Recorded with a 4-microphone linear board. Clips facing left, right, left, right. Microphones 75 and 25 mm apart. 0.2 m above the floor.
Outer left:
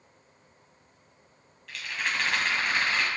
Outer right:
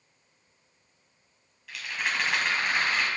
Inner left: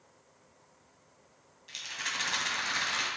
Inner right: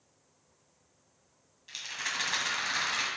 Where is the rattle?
5° right (ahead or behind), 1.7 m.